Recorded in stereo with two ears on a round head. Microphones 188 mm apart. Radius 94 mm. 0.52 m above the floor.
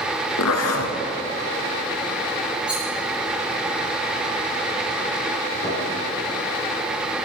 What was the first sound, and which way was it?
A zipper, 85° left.